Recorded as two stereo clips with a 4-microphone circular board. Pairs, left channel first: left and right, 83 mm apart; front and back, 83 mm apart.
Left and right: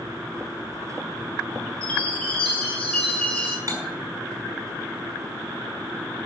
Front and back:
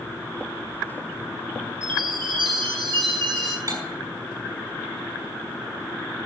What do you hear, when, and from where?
1.8 s a chime: 170° left, 5.5 m
3.7 s cutlery clinking: 140° right, 5.5 m